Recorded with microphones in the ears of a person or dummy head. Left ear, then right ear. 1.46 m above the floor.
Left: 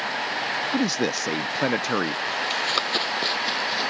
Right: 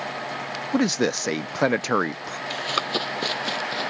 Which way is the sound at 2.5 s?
Centre (ahead or behind).